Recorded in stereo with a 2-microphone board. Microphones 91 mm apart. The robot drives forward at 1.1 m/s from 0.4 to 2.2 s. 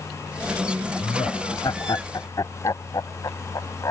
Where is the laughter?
65° left (ahead or behind); by 3.9 s 40° left (ahead or behind).